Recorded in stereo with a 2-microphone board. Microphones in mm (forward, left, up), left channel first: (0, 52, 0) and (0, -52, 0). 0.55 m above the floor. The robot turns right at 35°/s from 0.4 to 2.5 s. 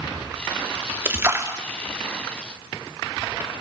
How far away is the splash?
About 0.8 m.